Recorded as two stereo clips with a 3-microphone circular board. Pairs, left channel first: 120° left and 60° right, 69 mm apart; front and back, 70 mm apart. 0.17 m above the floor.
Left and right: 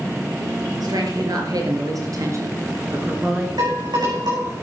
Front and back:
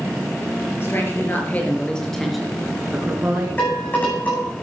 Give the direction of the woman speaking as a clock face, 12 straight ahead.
2 o'clock.